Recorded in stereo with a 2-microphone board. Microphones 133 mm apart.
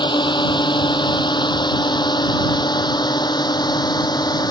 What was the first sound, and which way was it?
A drone, 35° left (ahead or behind).